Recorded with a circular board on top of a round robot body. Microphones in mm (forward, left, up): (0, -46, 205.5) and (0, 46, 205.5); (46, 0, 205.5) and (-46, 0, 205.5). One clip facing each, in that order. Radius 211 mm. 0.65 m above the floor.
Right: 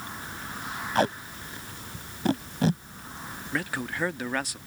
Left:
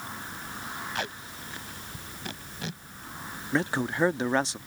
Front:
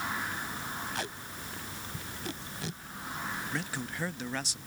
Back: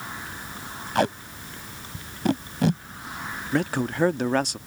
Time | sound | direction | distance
0.9 | tape being pulled | 145° right | ?
3.5 | a man speaking | 150° left | ?